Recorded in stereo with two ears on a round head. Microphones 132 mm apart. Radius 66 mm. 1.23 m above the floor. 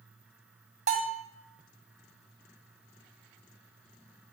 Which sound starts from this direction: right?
A bell, at 0.9 s.